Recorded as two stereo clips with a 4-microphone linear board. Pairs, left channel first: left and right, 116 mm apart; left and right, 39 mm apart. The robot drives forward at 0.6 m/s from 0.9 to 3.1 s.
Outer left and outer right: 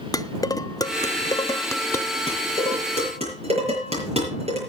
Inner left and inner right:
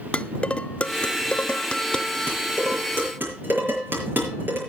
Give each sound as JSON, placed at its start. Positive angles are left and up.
{"t": 0.1, "sound": "dishes clattering", "side_deg": 30, "distance_m": 0.6}
{"t": 2.3, "sound": "dishes clattering", "side_deg": -55, "distance_m": 6.5}